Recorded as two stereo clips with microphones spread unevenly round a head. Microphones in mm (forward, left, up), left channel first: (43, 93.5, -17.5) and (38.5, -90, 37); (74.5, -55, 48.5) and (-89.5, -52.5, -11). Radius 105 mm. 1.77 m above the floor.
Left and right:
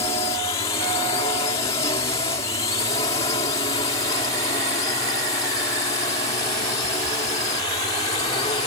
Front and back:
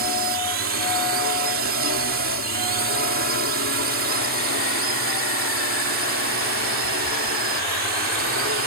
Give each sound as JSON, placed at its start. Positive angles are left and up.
{"t": 0.0, "sound": "a drone", "azimuth_deg": 160}